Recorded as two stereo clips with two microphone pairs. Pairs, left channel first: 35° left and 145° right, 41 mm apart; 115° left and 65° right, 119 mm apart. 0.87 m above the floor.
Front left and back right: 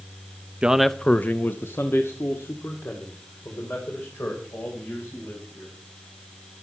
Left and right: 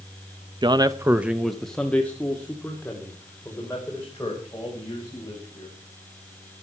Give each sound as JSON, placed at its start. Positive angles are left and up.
{"t": 0.6, "sound": "a man speaking", "azimuth_deg": -85, "distance_m": 0.7}